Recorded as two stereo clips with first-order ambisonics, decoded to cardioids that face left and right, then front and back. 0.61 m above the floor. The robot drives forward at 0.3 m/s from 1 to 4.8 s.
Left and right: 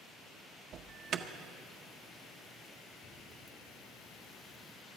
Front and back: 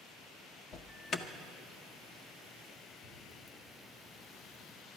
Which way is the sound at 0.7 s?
50° right.